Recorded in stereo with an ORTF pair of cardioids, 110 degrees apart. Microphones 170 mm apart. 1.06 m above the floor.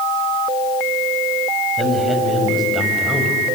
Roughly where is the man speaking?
Ahead.